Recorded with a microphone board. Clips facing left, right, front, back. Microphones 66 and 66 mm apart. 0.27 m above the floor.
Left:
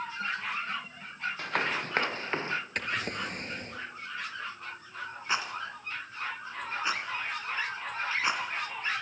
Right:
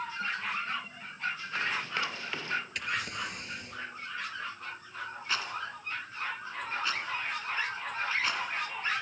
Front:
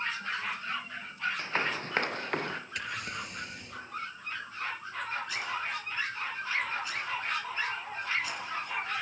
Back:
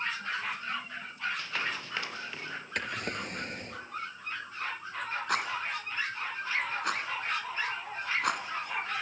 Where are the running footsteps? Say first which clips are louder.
Left 6 dB, front 3 dB; 60° left, 1.6 m; by 2.6 s 30° left, 1.7 m.